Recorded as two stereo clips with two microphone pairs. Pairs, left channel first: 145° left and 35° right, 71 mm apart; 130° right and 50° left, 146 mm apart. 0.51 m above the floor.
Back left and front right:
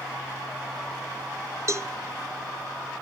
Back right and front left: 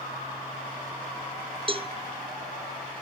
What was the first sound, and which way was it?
A cowbell, 5° left.